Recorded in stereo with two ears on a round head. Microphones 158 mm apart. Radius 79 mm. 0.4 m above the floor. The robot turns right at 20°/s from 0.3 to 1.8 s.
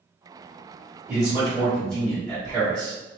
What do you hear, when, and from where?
1.1 s a man speaking: 5° right (ahead or behind), 1.8 m; by 3.0 s 5° left (ahead or behind), 1.8 m